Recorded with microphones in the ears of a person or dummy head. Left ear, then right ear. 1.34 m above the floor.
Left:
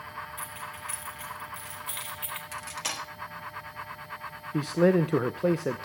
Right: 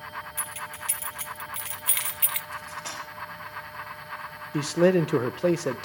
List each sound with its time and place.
0.4 s keys jangling: 20° right (ahead or behind), 1.8 m; by 2.4 s 30° right (ahead or behind), 0.7 m
2.5 s cutlery clinking: 25° left (ahead or behind), 1.4 m
4.5 s a man speaking: 10° right (ahead or behind), 0.6 m